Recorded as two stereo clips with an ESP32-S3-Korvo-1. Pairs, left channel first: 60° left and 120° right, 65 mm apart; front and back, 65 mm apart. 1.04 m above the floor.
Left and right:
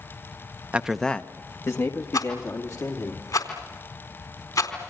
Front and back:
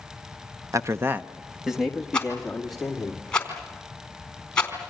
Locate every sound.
0.7 s a man speaking: 175° left, 0.7 m; by 3.1 s 85° left, 3 m
2.1 s a rattle: 75° left, 4 m